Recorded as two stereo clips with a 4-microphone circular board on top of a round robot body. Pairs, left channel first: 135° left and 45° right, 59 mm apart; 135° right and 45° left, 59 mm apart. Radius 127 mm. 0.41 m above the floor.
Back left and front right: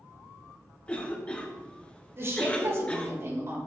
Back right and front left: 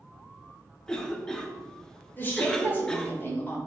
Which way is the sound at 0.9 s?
165° left.